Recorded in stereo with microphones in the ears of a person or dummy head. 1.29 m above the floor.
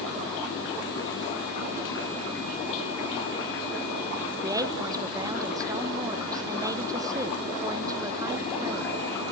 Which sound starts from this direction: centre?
A woman speaking, at 4.4 s.